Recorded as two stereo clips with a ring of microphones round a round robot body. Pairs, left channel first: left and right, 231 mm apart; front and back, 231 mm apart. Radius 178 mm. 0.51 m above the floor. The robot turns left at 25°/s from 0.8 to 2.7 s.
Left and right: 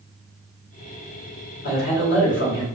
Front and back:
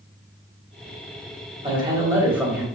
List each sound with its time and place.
1.6 s a man speaking: 115° left, 1.4 m; by 2.6 s 90° left, 1.4 m